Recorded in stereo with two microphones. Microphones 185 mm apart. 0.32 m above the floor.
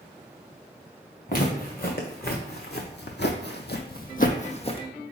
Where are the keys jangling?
I don't hear keys jangling.